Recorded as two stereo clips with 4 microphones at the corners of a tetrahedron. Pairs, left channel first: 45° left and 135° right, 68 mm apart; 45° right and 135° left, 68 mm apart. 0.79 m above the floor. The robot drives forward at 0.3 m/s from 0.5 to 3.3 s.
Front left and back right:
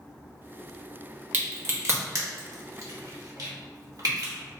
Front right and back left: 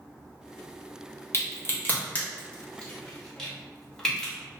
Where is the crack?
80° right, 0.8 m; by 4.3 s 125° right, 1.0 m.